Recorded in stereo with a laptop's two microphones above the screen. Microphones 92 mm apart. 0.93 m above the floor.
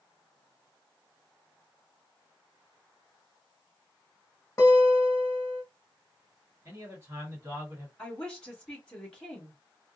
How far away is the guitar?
About 1.1 m.